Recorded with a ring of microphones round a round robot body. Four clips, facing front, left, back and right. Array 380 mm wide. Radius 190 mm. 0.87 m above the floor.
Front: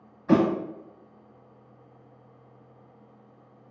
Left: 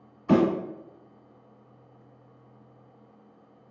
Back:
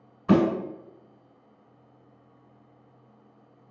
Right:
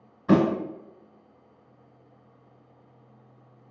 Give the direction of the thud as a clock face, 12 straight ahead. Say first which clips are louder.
Right 1 dB, even; 5 o'clock.